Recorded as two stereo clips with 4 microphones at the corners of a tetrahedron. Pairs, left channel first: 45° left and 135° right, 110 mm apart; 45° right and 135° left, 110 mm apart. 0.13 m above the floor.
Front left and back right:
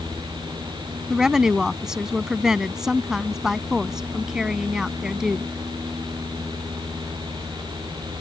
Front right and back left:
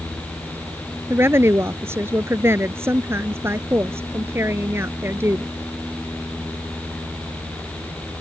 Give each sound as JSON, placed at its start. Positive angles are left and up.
{"t": 1.1, "sound": "a woman speaking", "azimuth_deg": 145}